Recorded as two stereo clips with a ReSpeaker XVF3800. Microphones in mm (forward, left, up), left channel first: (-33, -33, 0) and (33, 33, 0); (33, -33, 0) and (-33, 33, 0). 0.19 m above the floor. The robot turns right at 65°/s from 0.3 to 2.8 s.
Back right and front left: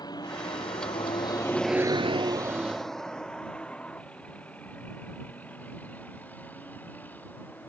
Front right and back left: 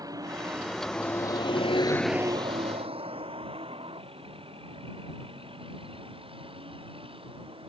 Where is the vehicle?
175° right; by 7.7 s 155° left.